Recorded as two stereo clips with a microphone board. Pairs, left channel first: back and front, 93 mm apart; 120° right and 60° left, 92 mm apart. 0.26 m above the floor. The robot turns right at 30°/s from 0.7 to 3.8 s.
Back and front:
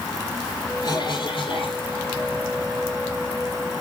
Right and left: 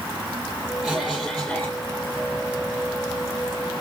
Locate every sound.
0.8 s a cough: 135° left, 7.5 m; by 1.8 s 165° left, 7.5 m